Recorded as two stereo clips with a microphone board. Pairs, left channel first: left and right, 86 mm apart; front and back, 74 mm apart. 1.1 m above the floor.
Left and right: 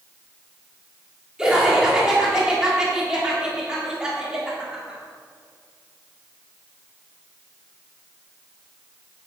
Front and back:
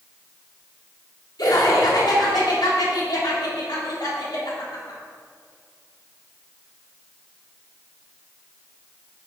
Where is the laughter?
10° right, 3.5 m.